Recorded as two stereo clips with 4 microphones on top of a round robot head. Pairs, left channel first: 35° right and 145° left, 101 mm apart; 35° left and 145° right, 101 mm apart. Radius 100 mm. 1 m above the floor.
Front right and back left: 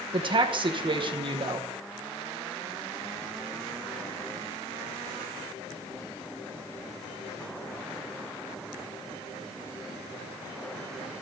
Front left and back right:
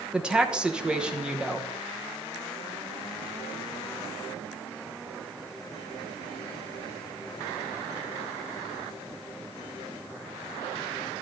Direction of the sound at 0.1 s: 140° left.